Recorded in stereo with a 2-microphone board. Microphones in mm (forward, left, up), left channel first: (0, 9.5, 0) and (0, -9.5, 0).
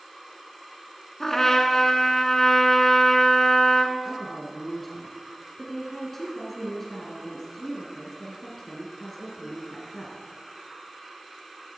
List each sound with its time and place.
1.2 s a trumpet: 20° left (ahead or behind), 1.2 m
4.0 s a woman speaking: 10° left (ahead or behind), 1.9 m